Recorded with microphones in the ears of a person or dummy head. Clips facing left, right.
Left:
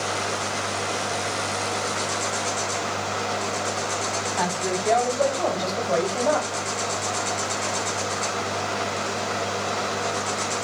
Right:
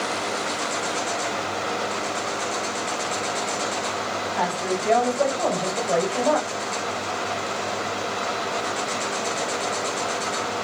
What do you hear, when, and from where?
4.4 s a woman speaking: centre (ahead or behind), 7.5 m; by 6.5 s 5° right (ahead or behind), 5.5 m